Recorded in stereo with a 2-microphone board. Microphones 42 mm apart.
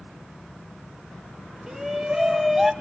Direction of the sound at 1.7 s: 10° right (ahead or behind).